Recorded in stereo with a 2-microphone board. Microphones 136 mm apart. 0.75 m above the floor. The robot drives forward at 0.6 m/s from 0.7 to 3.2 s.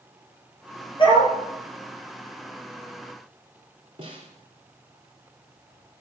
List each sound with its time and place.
1.0 s a dog barking: 40° left (ahead or behind), 4 m
4.0 s a snare drum: 40° right (ahead or behind), 3 m